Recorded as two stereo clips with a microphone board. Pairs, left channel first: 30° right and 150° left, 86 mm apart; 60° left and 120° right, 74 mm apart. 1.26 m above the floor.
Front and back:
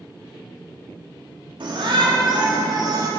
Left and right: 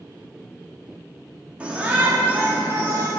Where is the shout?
165° left, 3 m; by 3.1 s 170° right, 3 m.